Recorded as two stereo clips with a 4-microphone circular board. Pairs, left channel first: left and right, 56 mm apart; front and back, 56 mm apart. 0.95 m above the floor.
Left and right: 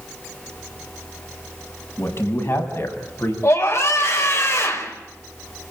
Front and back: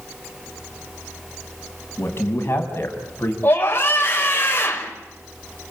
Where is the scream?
50° left, 5.5 m.